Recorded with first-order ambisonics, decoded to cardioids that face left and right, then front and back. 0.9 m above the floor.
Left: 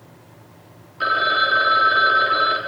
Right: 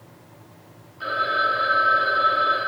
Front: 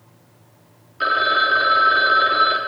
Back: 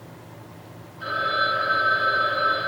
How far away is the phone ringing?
About 1.4 m.